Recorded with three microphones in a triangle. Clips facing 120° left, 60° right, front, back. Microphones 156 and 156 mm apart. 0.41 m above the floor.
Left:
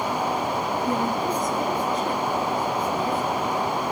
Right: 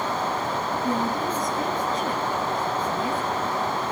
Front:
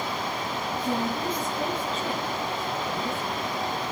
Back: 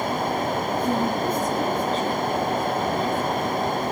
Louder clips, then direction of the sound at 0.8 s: Even, back 3 dB; 125° right.